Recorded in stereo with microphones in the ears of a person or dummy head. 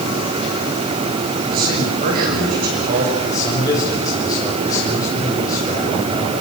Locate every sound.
1.5 s a man speaking: 50° right (ahead or behind), 7.5 m
3.2 s a man speaking: 25° left (ahead or behind), 6 m